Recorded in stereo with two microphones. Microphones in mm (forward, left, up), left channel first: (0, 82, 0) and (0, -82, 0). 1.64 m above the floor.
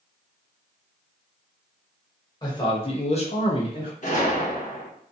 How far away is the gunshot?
About 0.8 m.